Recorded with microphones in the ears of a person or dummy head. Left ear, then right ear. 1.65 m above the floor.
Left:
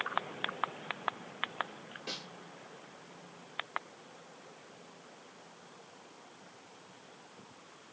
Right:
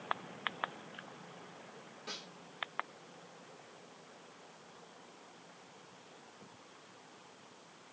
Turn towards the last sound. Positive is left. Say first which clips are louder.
# left 3 dB
turn(degrees=15)  # may be behind; listen again after turning